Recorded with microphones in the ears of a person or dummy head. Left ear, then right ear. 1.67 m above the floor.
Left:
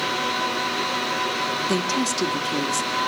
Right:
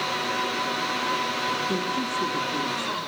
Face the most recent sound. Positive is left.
turn(degrees=70)  # may be behind; listen again after turning